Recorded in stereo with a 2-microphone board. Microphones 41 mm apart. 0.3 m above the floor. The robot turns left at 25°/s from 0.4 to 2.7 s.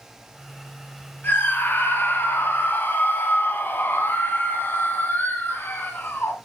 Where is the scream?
115° left, 2 m; by 6.3 s 80° left, 2 m.